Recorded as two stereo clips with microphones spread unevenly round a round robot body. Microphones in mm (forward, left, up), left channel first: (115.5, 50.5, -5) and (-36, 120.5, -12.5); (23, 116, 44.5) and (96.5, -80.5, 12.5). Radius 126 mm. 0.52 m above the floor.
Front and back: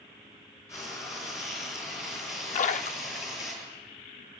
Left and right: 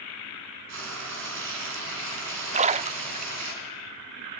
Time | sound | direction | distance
0.7 | frying | 105° right | 5 m
2.5 | a splash | 50° right | 0.6 m